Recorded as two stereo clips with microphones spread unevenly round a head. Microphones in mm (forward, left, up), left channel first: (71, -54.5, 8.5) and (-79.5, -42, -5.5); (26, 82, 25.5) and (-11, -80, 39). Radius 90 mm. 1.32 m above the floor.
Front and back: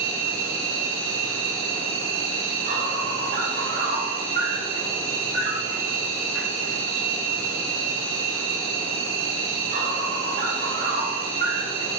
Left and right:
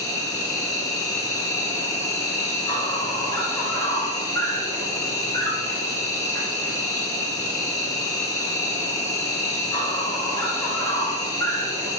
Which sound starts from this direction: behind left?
An insect, at 0.0 s.